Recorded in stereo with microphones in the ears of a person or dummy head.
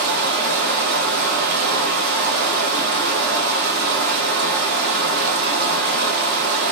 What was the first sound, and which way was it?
Running water, 55° right (ahead or behind).